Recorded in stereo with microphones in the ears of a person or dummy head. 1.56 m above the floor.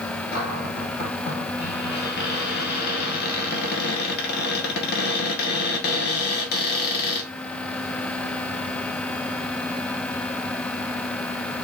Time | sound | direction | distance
0.3 | a cupboard door | 55° left (ahead or behind) | 1.7 m